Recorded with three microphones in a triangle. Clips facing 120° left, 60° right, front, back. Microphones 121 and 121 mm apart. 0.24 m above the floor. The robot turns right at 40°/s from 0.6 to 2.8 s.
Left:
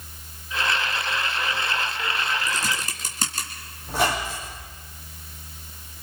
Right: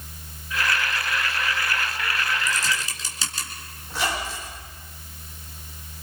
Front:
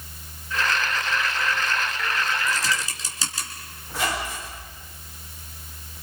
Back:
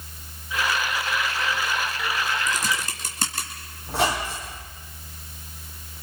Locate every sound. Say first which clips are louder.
2.5 s typing on a keyboard: even, even; 140° left, 3 m; by 3.5 s 155° left, 3 m
3.9 s a squeak: left 4 dB, back 4 dB; 160° left, 7 m